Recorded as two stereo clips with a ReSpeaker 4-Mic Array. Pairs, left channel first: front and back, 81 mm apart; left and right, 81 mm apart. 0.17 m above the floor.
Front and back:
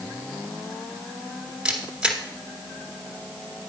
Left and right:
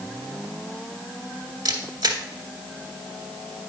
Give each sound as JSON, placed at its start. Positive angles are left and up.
{"t": 1.6, "sound": "a camera shutter", "azimuth_deg": -105, "distance_m": 1.6}